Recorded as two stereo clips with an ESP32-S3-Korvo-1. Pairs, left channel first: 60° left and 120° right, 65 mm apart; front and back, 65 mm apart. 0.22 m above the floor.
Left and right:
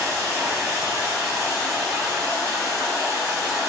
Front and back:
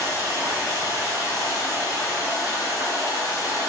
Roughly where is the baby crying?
No baby crying in this recording.